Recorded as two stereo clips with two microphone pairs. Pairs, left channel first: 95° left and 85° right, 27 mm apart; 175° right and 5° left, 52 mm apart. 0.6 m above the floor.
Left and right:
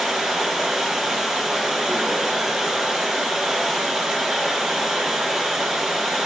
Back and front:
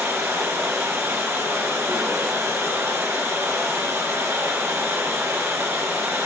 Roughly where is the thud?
No thud in this recording.